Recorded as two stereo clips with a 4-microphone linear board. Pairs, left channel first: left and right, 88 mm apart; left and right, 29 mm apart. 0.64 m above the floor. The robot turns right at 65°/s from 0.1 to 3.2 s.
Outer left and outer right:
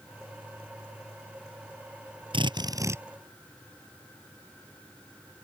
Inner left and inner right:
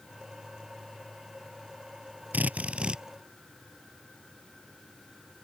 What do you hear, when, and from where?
2.3 s a drill: 70° right; by 3.0 s 25° right